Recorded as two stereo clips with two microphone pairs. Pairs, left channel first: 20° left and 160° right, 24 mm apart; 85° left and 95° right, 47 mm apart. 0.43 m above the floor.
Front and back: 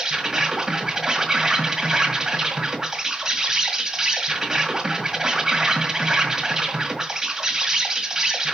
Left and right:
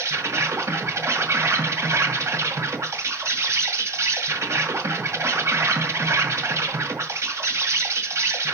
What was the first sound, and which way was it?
An insect, 95° right.